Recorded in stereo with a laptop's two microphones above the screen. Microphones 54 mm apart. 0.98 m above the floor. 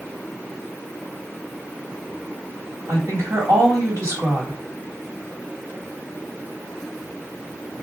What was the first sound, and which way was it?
A woman speaking, 75° right (ahead or behind).